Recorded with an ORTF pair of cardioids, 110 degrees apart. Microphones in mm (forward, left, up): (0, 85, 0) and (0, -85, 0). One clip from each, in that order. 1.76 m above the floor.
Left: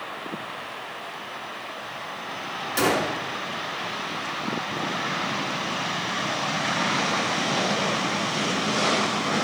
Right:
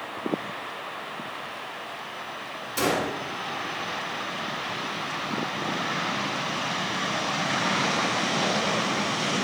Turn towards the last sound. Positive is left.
turn(degrees=15)